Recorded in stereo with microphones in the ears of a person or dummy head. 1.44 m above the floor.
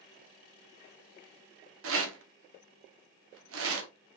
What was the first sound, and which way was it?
A rattle, 80° right.